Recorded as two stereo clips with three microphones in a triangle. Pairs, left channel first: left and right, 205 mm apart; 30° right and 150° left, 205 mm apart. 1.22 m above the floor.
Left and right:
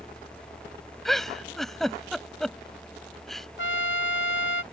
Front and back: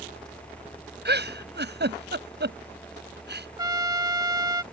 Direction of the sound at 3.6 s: 80° left.